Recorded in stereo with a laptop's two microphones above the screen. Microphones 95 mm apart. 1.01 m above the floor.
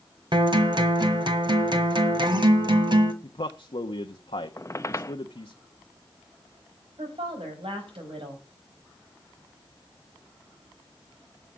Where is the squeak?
35° left (ahead or behind), 0.8 m.